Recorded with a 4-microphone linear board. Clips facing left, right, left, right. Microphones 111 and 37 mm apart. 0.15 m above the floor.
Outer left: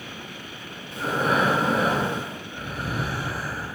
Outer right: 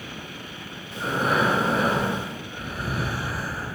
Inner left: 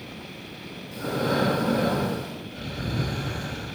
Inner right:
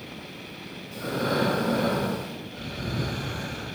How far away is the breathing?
About 1.4 m.